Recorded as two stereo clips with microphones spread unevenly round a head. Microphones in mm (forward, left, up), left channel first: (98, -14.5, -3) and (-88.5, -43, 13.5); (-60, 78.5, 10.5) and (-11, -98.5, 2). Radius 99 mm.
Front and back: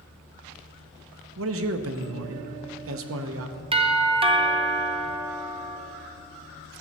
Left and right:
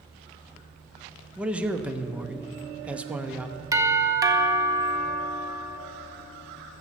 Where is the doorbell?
125° right, 1.0 m.